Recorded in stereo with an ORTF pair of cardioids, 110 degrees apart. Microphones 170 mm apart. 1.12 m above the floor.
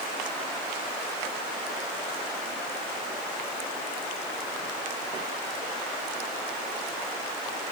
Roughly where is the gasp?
No gasp in this recording.